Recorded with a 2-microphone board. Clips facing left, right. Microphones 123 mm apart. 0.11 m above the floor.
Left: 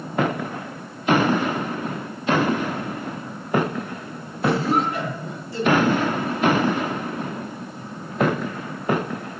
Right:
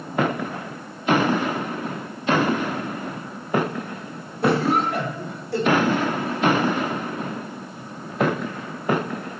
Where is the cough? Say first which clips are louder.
Right 1 dB; 70° right (ahead or behind), 8.5 m.